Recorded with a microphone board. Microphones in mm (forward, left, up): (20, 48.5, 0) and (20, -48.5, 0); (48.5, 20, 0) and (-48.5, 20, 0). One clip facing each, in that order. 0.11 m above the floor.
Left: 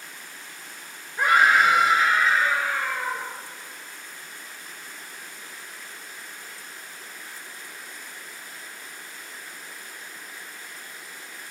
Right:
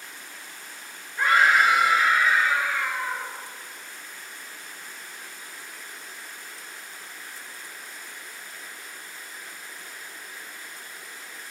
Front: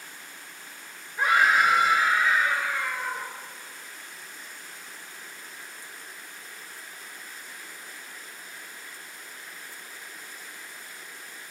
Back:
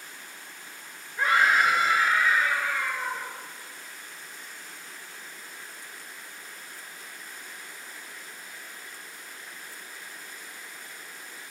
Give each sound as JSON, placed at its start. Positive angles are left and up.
{"t": 1.2, "sound": "a scream", "azimuth_deg": 40, "distance_m": 1.5}